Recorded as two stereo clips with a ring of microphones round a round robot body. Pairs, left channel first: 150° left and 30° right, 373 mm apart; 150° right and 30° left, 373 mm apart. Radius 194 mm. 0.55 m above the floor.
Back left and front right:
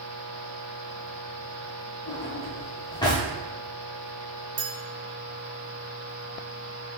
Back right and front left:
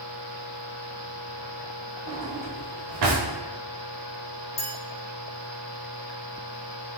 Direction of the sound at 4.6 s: 80° right.